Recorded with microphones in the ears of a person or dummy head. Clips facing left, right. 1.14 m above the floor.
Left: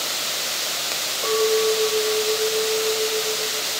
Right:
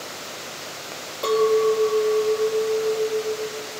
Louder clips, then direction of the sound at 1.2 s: Right 2 dB; 25° right (ahead or behind).